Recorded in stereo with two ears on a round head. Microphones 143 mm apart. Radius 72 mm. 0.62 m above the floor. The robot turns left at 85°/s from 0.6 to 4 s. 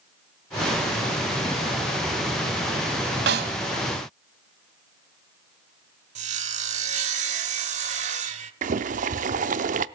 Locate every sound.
3.3 s a snare drum: 80° right, 1.4 m; by 3.6 s 55° right (ahead or behind), 1.4 m
6.2 s sawing: 45° right (ahead or behind), 1.3 m
8.6 s boiling: 50° right (ahead or behind), 0.6 m